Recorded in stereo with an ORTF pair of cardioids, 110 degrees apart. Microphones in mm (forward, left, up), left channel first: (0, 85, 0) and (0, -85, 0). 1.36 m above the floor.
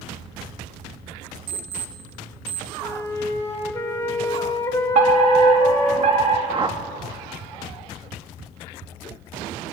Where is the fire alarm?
45° right, 5 m.